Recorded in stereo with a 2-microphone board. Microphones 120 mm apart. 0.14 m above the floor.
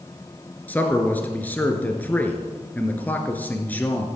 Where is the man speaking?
15° left (ahead or behind), 1.7 m.